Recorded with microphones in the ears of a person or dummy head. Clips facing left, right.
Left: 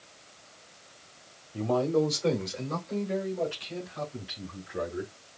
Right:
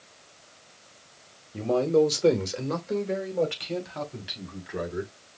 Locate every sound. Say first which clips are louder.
1.5 s a man speaking: right 4 dB; 15° right (ahead or behind), 1.3 m; by 5.1 s 85° right, 4 m